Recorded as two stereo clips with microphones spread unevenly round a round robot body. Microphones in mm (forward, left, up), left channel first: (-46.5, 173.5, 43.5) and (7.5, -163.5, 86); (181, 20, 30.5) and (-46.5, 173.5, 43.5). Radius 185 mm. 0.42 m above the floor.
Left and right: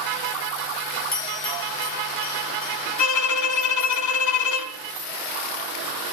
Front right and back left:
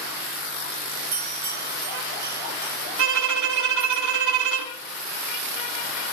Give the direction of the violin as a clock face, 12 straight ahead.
7 o'clock.